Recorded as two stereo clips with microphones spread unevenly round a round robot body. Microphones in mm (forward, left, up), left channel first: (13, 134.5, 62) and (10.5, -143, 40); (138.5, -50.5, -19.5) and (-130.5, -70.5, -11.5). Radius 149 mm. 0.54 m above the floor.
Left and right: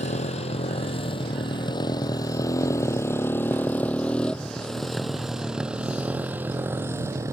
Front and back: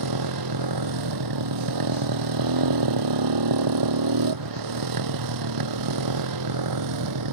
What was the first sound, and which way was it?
A motorcycle, 160° left.